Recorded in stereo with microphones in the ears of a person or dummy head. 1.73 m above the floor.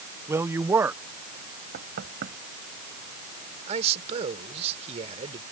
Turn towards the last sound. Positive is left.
turn(degrees=-40)  # may be behind; listen again after turning